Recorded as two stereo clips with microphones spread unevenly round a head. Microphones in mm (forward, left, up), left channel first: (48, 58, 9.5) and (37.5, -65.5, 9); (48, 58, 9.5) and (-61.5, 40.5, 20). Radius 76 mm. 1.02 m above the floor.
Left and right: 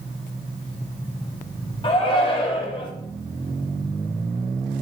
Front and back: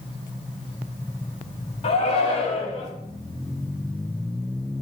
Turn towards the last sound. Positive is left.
turn(degrees=35)